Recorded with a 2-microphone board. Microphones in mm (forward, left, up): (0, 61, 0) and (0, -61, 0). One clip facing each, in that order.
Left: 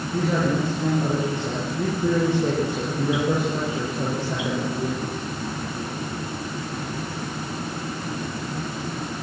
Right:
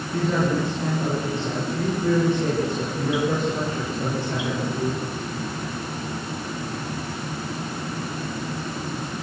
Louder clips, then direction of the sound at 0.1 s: Even; 15° left (ahead or behind).